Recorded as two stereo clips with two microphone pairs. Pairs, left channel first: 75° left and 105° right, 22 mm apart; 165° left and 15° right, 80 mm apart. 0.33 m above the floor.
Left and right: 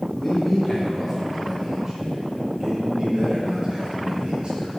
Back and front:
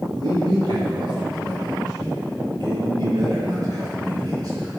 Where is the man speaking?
10° left, 3 m; by 4.7 s 55° right, 6.5 m.